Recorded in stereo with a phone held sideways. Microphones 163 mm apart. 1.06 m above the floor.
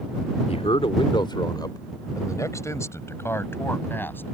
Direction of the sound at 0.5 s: 40° left (ahead or behind).